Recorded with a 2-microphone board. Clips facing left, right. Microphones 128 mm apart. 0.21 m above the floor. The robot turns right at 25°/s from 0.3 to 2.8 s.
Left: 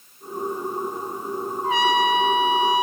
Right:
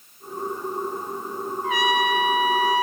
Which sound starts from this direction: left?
A trumpet, at 1.6 s.